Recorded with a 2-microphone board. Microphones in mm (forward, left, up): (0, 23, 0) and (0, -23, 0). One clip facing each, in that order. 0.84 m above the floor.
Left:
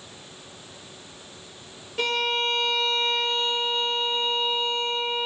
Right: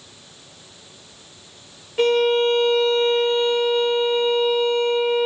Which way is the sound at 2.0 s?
15° right (ahead or behind).